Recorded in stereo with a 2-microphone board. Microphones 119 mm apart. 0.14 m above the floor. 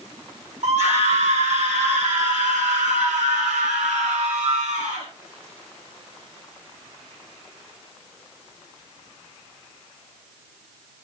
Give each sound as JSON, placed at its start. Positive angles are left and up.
{"t": 0.6, "sound": "a scream", "side_deg": -70, "distance_m": 7.5}